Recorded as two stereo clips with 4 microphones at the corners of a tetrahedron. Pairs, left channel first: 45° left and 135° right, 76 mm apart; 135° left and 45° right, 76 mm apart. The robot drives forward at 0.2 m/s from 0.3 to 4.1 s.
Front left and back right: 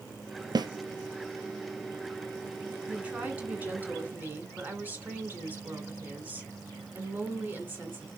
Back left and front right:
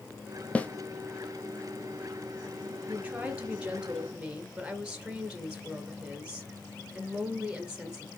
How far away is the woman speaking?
About 1.7 m.